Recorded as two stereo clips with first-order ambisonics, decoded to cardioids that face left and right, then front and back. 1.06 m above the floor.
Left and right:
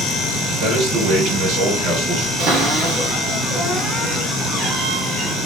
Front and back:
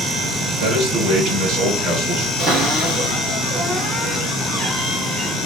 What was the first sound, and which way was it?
A man speaking, 130° right.